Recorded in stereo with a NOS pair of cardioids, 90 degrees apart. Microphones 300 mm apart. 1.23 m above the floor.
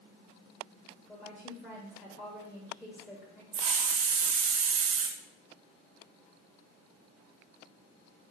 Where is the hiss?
50° right, 0.5 m.